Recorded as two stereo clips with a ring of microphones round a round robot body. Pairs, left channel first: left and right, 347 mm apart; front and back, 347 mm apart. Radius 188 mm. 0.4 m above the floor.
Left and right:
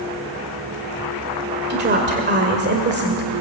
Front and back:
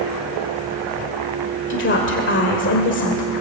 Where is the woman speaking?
40° right, 1.9 m.